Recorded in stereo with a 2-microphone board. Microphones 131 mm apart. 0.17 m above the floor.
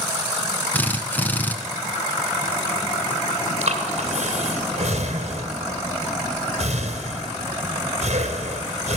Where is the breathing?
55° right (ahead or behind), 3 m.